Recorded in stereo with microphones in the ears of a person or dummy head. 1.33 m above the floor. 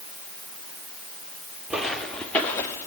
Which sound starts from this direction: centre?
Footsteps, at 1.7 s.